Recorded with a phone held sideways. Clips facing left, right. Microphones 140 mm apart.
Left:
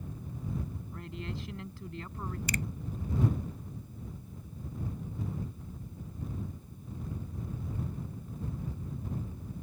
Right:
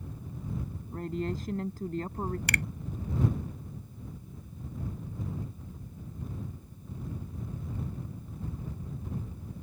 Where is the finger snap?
80° right.